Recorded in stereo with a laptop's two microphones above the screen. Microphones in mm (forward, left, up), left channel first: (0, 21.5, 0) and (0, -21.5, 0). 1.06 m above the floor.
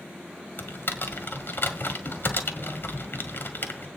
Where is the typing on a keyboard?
55° left (ahead or behind), 1.7 m.